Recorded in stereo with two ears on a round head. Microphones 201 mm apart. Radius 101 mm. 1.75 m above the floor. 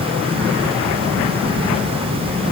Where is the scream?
I don't hear a scream.